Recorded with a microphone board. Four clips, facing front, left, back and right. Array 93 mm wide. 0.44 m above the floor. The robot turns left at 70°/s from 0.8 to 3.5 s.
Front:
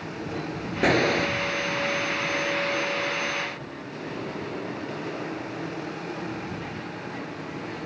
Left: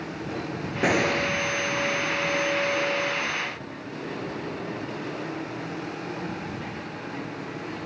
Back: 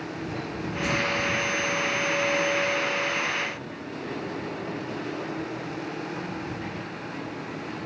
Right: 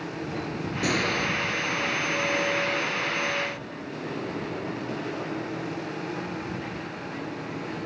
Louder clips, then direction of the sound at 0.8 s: Left 4 dB, front 6 dB; 35° left.